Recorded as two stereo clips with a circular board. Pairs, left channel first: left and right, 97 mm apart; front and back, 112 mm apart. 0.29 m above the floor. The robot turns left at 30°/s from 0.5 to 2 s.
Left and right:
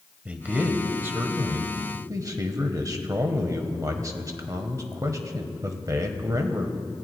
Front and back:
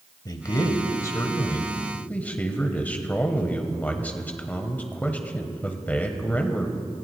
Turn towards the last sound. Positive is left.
turn(degrees=-65)